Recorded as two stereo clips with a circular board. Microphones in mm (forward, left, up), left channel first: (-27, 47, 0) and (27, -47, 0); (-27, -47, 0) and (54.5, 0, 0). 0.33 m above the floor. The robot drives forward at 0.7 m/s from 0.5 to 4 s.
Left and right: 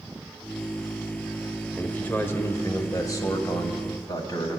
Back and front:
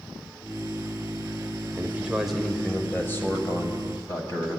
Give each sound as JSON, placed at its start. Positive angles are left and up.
{"t": 1.8, "sound": "a man speaking", "azimuth_deg": 55, "distance_m": 0.9}